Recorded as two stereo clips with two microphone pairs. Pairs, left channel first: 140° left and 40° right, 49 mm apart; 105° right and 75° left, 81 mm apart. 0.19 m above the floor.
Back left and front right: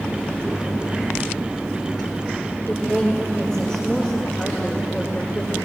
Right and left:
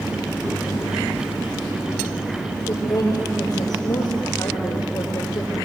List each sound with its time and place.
2.7 s a woman speaking: 145° right, 5 m